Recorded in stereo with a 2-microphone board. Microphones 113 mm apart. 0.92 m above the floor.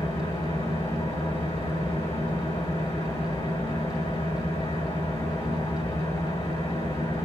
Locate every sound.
0.0 s an engine running: 60° left (ahead or behind), 4 m